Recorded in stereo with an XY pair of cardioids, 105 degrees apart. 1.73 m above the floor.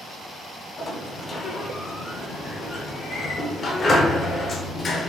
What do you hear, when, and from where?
0.8 s a sliding door: 40° left, 0.6 m